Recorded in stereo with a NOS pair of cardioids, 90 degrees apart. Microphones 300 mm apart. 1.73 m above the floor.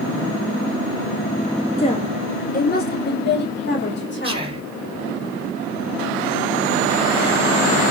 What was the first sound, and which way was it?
A woman speaking, 20° left.